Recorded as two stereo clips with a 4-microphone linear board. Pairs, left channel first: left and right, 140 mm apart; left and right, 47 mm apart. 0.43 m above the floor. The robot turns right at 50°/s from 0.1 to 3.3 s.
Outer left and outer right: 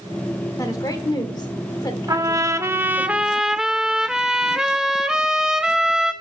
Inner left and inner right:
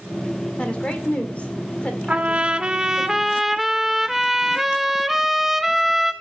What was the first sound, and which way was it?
A woman speaking, 25° left (ahead or behind).